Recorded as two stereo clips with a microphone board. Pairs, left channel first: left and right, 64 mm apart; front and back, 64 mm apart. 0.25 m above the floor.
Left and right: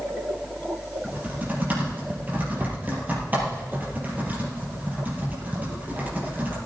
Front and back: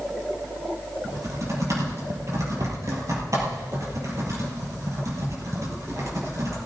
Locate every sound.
1.0 s typing on a keyboard: 150° right, 5 m